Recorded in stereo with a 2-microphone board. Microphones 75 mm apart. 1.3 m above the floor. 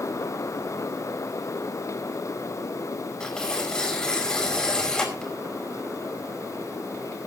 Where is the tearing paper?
10° left (ahead or behind), 5 m.